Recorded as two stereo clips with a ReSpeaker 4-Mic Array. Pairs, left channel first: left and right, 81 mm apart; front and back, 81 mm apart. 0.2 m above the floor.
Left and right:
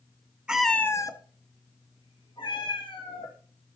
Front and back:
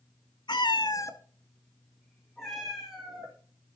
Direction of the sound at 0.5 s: 10° right.